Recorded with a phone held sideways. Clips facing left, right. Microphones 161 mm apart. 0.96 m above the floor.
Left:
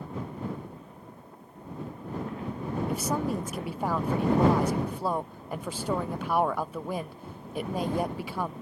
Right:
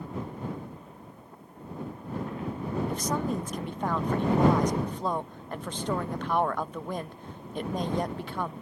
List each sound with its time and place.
2.9 s a woman speaking: 5° left (ahead or behind)